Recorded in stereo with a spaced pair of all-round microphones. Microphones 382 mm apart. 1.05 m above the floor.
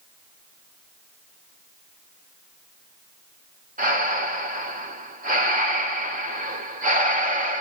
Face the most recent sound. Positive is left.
turn(degrees=-20)  # may be behind; listen again after turning